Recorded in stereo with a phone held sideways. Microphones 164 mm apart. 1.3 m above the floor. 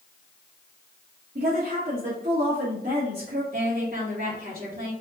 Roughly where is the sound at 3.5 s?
Right.